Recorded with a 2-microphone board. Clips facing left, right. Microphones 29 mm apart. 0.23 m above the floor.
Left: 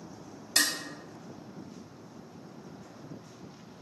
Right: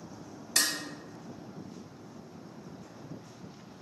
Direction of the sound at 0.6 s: 35° left (ahead or behind).